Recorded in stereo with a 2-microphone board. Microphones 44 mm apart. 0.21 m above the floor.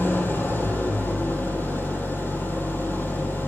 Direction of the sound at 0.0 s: 50° left (ahead or behind).